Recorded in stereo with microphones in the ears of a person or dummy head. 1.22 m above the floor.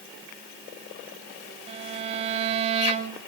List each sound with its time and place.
1.7 s a violin: 30° right (ahead or behind), 1.4 m